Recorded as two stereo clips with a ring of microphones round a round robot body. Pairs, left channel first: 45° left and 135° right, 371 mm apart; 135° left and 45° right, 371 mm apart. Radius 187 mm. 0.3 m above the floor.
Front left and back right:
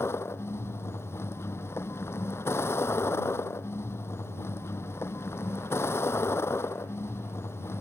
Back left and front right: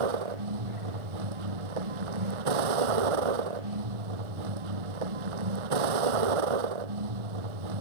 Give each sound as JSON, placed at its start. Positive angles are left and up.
{"t": 0.0, "sound": "a vehicle", "azimuth_deg": -40}